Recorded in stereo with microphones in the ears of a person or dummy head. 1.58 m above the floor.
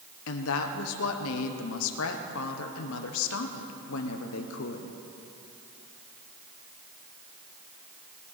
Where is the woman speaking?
75° left (ahead or behind), 1.1 m.